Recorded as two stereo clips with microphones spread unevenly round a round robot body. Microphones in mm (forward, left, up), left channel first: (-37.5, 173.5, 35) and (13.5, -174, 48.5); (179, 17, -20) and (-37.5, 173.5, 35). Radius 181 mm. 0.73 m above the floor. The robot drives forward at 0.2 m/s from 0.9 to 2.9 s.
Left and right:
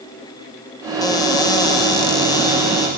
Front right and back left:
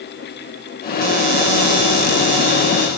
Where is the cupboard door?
175° left, 0.5 m.